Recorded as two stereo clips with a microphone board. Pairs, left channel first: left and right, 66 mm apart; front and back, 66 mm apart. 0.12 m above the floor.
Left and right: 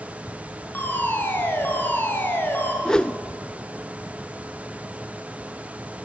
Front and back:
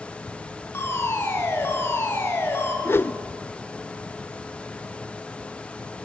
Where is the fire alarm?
40° left, 3.5 m.